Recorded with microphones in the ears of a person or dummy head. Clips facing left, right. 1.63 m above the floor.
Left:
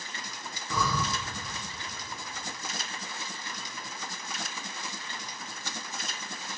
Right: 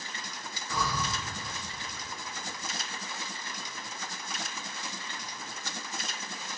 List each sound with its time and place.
0.7 s breathing: 80° left, 1.4 m